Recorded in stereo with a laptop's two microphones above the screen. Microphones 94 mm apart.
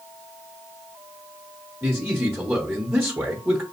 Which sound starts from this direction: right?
A man speaking, at 1.8 s.